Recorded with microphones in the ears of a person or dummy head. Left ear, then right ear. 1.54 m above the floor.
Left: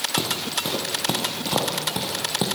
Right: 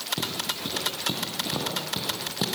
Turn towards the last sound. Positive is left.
turn(degrees=25)  # may be behind; listen again after turning